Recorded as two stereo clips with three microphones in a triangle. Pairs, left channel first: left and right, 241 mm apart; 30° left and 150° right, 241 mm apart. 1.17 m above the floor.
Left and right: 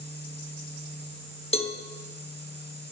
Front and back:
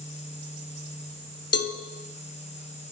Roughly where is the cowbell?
Ahead left.